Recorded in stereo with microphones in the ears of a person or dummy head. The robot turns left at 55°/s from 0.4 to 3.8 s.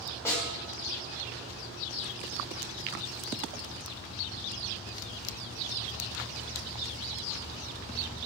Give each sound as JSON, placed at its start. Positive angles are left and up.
{"t": 0.2, "sound": "a snare drum", "side_deg": 15, "distance_m": 7.5}